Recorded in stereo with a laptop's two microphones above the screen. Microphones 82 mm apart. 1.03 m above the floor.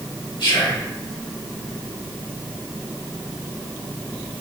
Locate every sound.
0.4 s whispering: 75° left (ahead or behind), 2.5 m